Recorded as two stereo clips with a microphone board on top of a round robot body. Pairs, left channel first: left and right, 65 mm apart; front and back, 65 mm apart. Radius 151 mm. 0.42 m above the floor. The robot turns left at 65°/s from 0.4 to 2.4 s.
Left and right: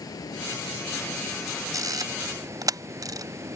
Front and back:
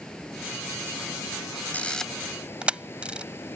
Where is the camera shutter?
65° right; by 3.6 s 105° right.